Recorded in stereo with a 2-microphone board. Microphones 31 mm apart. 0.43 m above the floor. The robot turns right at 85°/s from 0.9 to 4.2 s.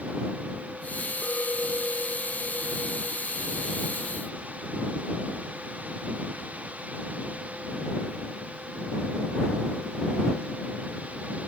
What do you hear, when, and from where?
1.2 s a clink: 90° left; by 4.2 s 20° right